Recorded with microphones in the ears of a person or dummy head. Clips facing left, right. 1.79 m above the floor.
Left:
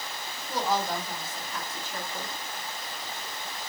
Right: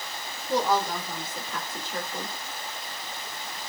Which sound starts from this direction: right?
A woman speaking, at 0.5 s.